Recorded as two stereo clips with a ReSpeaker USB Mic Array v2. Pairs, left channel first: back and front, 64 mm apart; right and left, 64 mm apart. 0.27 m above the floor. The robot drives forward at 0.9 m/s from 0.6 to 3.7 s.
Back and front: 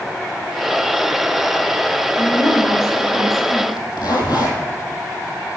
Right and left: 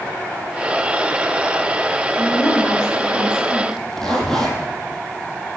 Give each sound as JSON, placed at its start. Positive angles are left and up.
{"t": 2.2, "sound": "a woman speaking", "azimuth_deg": -125, "distance_m": 3.0}
{"t": 3.7, "sound": "a zipper", "azimuth_deg": -170, "distance_m": 2.5}